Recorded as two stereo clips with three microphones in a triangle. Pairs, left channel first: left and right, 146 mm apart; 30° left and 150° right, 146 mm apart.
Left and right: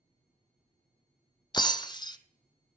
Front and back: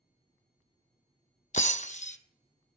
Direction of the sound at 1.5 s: 40° left.